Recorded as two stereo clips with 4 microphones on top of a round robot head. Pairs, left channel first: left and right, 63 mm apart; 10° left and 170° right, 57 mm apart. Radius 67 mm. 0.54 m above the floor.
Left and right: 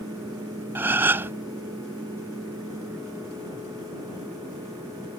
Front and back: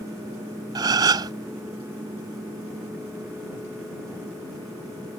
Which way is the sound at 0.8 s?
155° right.